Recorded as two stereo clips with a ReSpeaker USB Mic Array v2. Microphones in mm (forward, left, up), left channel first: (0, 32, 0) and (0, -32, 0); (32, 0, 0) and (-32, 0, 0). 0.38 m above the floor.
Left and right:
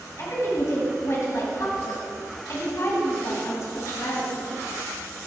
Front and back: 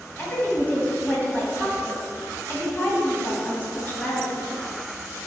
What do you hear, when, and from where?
0.2 s a woman speaking: 55° left, 2.5 m